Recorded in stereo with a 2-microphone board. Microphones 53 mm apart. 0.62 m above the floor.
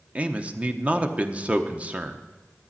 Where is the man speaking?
25° right (ahead or behind), 1.0 m.